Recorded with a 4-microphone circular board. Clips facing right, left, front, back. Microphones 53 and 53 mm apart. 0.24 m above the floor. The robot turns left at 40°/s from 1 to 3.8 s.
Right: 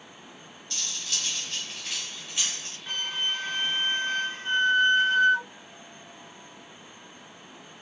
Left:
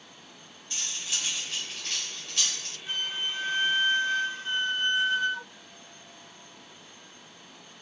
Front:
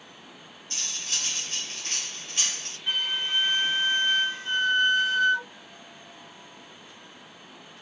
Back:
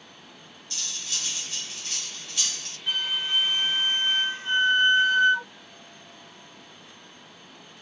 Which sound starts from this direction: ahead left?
Cutlery clinking, at 0.7 s.